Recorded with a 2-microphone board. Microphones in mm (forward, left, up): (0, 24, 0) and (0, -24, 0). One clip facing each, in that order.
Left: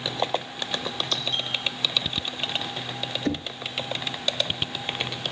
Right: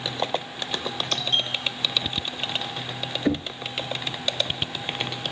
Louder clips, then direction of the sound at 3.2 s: Right 4 dB; 15° right (ahead or behind).